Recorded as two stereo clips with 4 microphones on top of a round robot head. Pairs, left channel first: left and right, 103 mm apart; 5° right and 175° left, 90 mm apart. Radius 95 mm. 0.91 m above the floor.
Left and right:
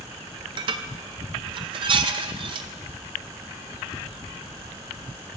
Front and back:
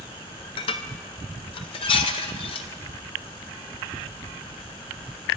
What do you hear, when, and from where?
0.6 s dishes clattering: 40° right, 0.6 m